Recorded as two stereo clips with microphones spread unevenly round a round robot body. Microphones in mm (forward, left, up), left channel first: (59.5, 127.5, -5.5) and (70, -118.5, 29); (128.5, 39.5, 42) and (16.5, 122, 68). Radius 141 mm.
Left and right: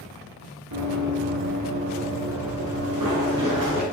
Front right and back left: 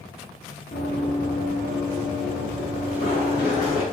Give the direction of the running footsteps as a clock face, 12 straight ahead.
3 o'clock.